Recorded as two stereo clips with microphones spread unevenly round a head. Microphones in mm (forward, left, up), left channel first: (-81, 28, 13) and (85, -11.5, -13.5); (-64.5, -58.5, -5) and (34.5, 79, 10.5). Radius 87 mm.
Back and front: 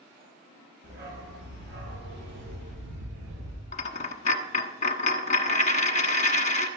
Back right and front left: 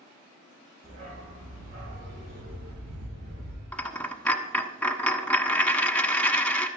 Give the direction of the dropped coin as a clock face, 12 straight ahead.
7 o'clock.